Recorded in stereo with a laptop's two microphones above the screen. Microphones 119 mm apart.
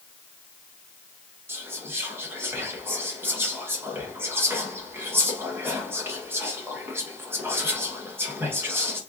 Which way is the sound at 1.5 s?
15° right (ahead or behind).